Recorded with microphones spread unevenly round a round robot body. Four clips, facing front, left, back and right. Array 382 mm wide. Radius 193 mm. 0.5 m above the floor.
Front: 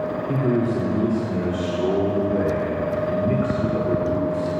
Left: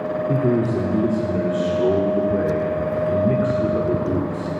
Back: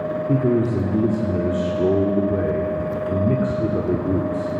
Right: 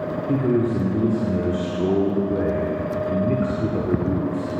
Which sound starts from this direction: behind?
A man speaking, at 0.3 s.